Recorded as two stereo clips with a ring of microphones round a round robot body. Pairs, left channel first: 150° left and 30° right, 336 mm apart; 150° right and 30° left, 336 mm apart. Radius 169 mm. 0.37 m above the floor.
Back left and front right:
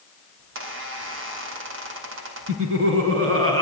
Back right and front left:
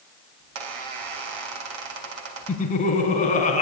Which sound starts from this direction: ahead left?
A squeak, at 0.4 s.